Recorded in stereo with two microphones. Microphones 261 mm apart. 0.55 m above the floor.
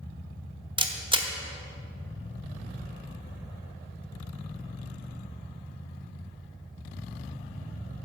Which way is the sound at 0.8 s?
20° right (ahead or behind).